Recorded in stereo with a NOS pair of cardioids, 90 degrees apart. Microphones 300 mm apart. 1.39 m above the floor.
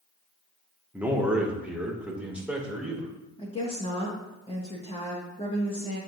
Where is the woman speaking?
15° left, 1.8 m.